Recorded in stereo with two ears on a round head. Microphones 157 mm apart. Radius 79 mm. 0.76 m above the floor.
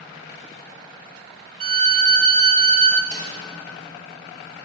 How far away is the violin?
About 1.2 m.